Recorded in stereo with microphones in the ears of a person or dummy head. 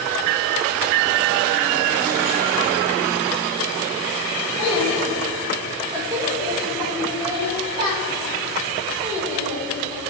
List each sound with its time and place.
4.6 s a child speaking: 25° left (ahead or behind), 0.8 m; by 10.0 s 35° right (ahead or behind), 4 m